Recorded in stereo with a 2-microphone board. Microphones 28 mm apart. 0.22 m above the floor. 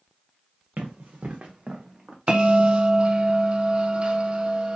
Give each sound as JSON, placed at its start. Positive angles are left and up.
{"t": 0.8, "sound": "running footsteps", "side_deg": -75, "distance_m": 1.1}
{"t": 2.3, "sound": "a bell", "side_deg": -40, "distance_m": 0.6}